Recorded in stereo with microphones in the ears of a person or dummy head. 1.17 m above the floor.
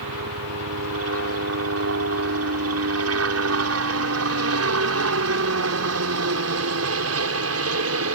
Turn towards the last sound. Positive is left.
turn(degrees=-70)  # may be behind; listen again after turning